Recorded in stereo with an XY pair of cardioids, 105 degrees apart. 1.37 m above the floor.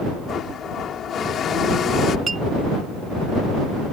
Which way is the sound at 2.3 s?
35° right.